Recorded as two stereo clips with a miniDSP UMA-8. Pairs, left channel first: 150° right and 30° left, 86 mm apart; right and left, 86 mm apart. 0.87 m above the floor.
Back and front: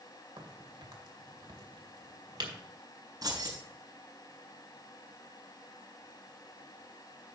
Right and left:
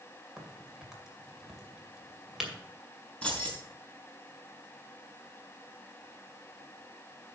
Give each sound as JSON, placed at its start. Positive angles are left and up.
{"t": 0.4, "sound": "a crack", "azimuth_deg": 5, "distance_m": 2.0}
{"t": 3.2, "sound": "keys jangling", "azimuth_deg": -15, "distance_m": 5.5}